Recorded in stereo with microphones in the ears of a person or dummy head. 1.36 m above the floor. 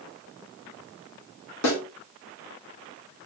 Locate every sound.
1.6 s a snare drum: 80° left, 1.9 m